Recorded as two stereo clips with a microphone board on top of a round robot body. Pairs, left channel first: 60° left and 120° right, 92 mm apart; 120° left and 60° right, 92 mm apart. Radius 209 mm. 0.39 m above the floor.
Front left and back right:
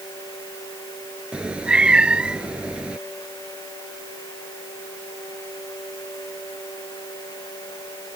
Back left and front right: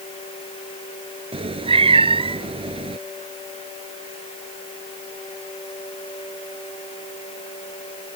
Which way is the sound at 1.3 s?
40° right.